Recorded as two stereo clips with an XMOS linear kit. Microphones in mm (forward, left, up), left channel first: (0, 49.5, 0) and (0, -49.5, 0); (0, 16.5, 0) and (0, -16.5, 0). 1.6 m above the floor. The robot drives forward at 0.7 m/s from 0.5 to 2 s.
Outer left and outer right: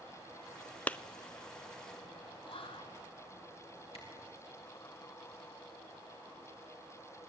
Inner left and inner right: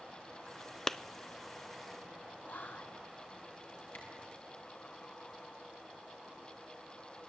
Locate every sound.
0.9 s a clap: 15° left (ahead or behind), 0.6 m
2.5 s whispering: 65° left (ahead or behind), 1.0 m
3.9 s a camera shutter: 80° left, 6.5 m